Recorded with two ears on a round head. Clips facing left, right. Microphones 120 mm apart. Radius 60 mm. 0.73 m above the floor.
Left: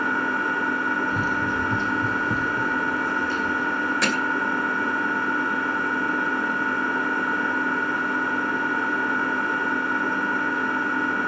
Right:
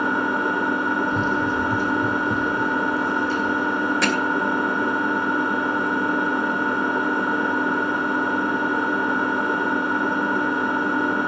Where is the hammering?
Centre (ahead or behind), 2.5 m.